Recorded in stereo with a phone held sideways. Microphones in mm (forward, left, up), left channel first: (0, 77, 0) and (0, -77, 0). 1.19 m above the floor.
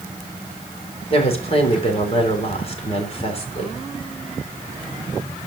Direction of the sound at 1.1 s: 40° left (ahead or behind).